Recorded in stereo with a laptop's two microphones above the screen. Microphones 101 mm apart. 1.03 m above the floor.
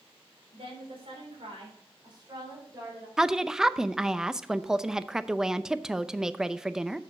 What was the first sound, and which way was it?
A woman speaking, 80° right.